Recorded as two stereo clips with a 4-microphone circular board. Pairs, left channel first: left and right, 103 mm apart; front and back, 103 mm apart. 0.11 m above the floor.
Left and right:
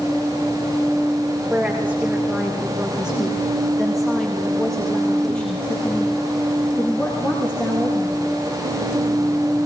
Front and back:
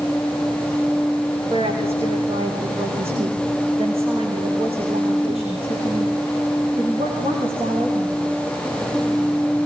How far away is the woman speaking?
About 7.5 m.